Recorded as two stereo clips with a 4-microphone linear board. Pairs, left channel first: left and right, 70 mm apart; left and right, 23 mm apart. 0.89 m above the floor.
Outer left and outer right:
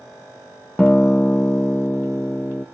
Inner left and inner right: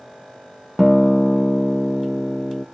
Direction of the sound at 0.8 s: 15° left (ahead or behind).